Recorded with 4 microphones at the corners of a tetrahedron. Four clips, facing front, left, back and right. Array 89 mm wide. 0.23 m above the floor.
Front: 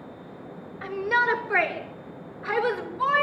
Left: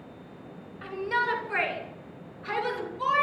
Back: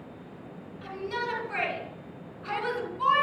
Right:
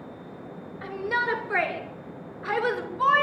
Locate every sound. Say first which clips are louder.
0.8 s a shout: right 1 dB, front 9 dB; 25° right, 3.5 m; by 3.2 s 60° right, 3.5 m